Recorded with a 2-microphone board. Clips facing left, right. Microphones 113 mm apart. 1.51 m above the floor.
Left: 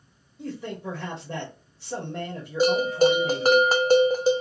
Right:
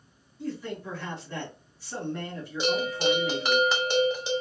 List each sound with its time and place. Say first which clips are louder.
0.4 s a man speaking: left 1 dB; 70° left (ahead or behind), 1.3 m
2.6 s a bell: left 7 dB; 40° left (ahead or behind), 0.5 m